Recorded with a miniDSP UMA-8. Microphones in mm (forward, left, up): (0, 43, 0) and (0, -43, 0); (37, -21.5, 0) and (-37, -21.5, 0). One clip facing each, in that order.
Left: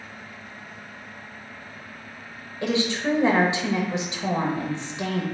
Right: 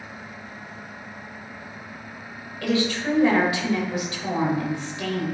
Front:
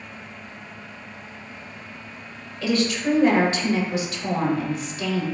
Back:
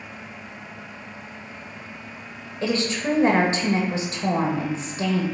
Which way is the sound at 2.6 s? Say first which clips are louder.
Right 1 dB, front 2 dB; 145° left.